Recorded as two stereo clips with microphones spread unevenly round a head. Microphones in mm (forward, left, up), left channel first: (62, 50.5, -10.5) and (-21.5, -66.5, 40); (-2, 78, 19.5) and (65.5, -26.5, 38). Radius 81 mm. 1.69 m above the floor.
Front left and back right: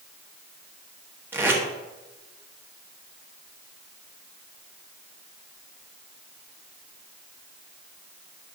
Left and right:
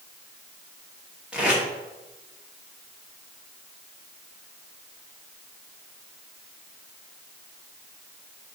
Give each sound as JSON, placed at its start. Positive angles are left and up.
{"t": 1.3, "sound": "tape being pulled", "azimuth_deg": -120, "distance_m": 1.1}